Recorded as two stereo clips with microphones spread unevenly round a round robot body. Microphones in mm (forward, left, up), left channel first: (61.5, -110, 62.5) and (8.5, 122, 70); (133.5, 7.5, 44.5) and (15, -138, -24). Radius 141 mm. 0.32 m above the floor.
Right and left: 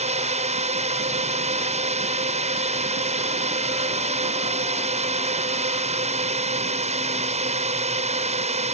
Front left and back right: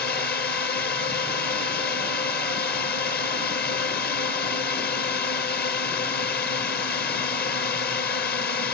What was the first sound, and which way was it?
A drone, 70° left.